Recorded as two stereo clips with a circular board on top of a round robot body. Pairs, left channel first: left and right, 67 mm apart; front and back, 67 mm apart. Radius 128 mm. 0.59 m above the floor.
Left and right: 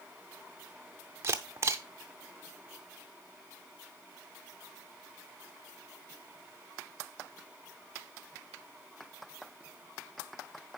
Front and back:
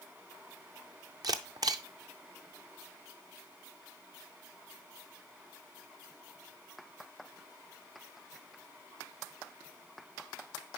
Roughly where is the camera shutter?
Behind right.